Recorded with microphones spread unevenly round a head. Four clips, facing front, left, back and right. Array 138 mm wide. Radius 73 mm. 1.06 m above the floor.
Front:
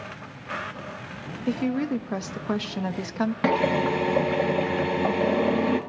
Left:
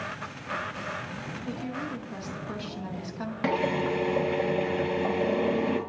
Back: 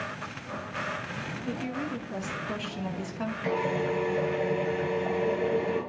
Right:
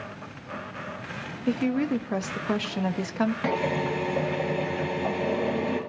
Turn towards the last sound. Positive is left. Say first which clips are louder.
# even, front 5 dB
turn(degrees=0)